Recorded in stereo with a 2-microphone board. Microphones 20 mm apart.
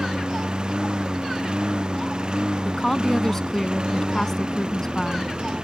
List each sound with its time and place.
0.0 s a lawn mower: 45° right (ahead or behind)
2.6 s a woman speaking: 20° left (ahead or behind)